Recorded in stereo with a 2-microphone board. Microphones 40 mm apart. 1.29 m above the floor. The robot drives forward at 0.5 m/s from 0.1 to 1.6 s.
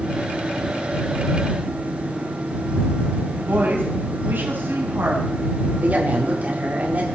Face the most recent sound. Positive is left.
turn(degrees=-40)  # may be behind; listen again after turning